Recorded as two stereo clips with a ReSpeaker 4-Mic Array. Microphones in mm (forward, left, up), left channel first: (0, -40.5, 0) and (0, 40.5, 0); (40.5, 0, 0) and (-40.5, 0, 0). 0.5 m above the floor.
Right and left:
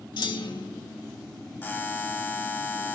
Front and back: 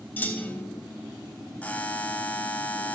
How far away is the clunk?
About 0.6 m.